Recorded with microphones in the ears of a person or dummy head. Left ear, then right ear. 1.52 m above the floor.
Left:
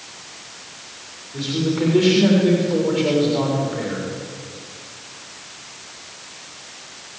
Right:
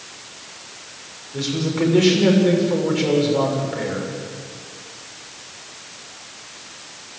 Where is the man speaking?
20° right (ahead or behind), 6.5 m.